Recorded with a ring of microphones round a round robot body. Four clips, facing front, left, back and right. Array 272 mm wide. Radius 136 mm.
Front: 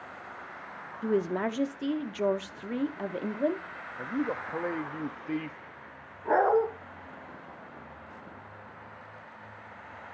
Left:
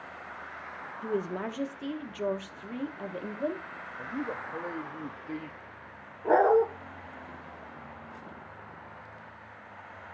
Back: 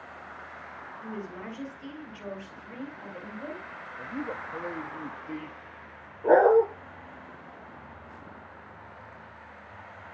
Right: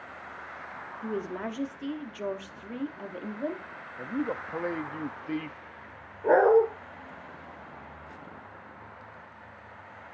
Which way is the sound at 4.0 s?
50° right.